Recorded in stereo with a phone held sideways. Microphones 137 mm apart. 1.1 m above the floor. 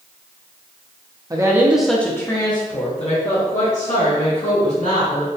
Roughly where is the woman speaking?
Right.